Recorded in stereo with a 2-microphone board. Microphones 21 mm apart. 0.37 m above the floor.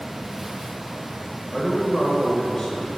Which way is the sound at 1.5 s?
35° left (ahead or behind).